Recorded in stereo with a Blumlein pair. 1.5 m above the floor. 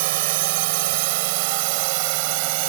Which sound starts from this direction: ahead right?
A drone, at 0.0 s.